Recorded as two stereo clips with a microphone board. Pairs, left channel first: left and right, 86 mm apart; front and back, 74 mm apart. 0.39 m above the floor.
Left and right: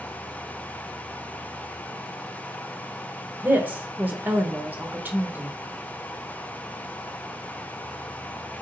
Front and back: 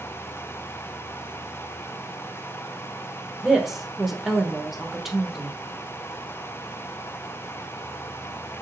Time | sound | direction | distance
3.4 | a woman speaking | 105° right | 0.8 m